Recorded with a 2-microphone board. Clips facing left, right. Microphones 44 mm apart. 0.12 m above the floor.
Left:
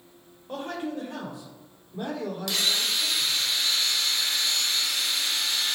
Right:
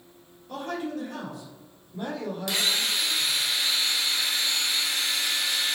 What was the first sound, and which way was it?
A man speaking, 35° left (ahead or behind).